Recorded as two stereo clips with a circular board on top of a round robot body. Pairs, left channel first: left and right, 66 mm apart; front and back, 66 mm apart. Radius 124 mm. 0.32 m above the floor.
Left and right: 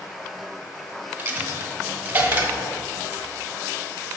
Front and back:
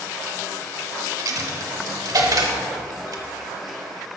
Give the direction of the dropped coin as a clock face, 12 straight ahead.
5 o'clock.